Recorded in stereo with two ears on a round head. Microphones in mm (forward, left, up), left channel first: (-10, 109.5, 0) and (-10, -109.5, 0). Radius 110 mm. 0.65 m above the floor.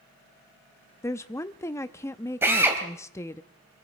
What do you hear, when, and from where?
1.0 s a woman speaking: 10° left (ahead or behind), 0.6 m
2.4 s a drill: 10° right (ahead or behind), 3 m